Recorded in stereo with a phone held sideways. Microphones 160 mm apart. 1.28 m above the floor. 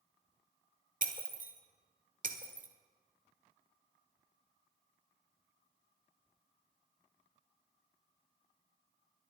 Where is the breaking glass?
60° right (ahead or behind), 1.5 m.